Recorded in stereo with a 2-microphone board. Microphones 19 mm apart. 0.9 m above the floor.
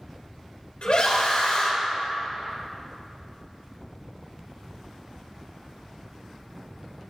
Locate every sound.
0.8 s a scream: 70° left (ahead or behind), 4.5 m